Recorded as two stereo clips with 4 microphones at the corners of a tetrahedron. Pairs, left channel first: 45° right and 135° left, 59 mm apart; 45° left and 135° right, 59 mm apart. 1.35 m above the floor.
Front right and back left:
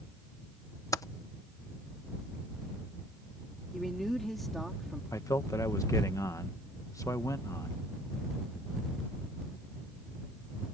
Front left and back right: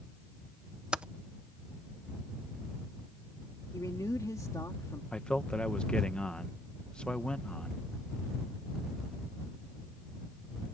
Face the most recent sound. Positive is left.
turn(degrees=-25)